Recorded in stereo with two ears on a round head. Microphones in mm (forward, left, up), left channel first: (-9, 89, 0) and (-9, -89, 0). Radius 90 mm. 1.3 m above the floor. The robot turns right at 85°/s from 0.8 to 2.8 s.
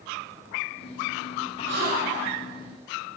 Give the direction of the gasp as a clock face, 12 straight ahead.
2 o'clock.